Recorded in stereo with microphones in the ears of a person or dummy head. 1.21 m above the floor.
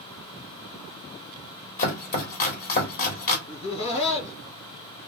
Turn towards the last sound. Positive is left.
turn(degrees=35)  # may be behind; listen again after turning